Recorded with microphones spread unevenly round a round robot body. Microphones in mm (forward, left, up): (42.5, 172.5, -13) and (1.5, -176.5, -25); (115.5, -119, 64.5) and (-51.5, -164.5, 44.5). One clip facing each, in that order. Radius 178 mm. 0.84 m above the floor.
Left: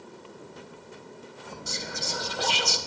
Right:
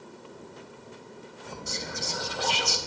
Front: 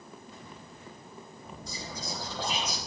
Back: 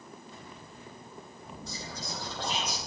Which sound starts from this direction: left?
Whispering, at 1.7 s.